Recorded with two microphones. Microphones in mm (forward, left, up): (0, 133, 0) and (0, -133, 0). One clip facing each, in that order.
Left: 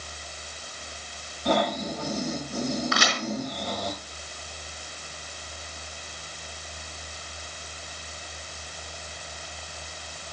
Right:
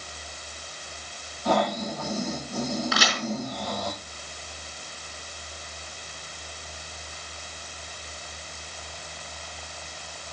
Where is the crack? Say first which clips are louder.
Even; 5° right (ahead or behind), 4.5 m.